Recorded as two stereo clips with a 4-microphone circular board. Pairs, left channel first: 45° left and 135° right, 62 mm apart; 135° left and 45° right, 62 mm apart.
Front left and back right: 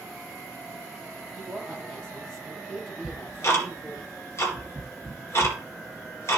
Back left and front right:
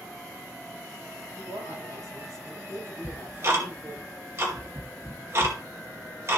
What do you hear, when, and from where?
1.4 s a woman speaking: 35° right, 5.5 m
3.0 s ticking: straight ahead, 2 m